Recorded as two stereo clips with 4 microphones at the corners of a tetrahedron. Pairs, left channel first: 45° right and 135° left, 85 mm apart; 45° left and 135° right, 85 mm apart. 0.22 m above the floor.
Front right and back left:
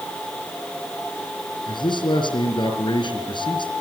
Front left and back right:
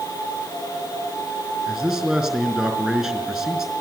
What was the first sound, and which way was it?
A man speaking, 45° right.